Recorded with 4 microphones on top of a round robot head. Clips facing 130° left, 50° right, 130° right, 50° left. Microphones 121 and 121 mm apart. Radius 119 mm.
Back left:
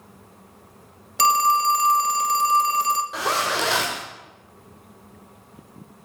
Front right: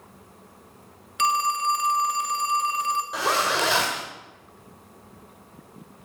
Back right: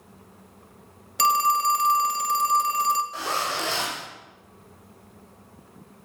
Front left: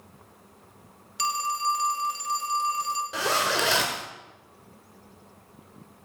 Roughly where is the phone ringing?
Behind.